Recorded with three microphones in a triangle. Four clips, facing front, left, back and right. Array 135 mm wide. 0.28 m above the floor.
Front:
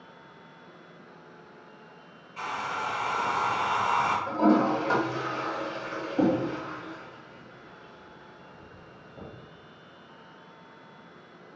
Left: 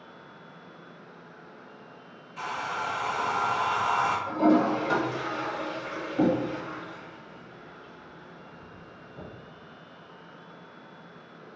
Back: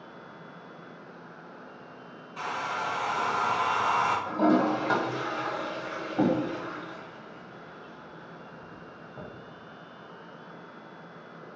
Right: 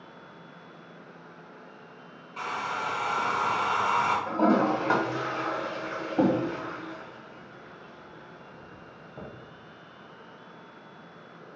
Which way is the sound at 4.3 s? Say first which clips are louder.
Left 2 dB, front 2 dB; 110° right.